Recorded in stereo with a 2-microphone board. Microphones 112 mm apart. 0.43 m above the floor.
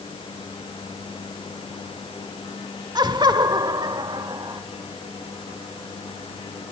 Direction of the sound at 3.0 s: 35° right (ahead or behind).